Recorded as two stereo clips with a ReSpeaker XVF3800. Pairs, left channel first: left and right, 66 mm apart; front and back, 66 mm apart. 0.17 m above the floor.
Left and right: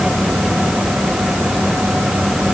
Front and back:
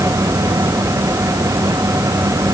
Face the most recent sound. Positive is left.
No sound to turn to.